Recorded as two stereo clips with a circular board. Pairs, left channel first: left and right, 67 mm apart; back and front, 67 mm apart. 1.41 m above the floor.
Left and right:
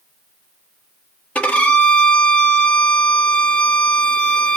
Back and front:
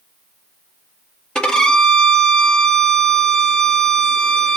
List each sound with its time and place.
1.4 s a violin: 120° left, 0.8 m